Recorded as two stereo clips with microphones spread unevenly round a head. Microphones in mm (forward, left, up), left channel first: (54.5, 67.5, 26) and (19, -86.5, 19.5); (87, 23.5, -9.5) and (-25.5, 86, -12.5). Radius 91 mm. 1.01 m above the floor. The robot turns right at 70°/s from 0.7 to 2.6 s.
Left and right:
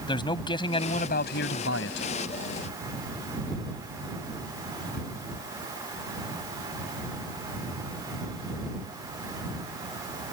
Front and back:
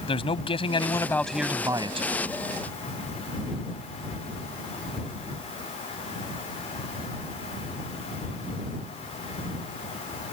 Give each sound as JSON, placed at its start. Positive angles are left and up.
{"t": 0.1, "sound": "a man speaking", "azimuth_deg": 15}